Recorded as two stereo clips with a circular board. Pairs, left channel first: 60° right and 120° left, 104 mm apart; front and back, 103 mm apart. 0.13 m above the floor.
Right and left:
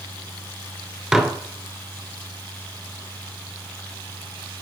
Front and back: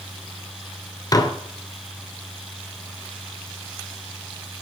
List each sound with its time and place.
1.1 s dishes clattering: 40° left, 1.2 m